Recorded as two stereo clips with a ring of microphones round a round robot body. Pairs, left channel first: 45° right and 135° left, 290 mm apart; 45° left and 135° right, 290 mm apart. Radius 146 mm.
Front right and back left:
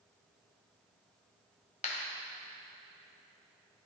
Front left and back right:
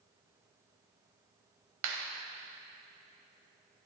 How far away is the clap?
About 1.4 m.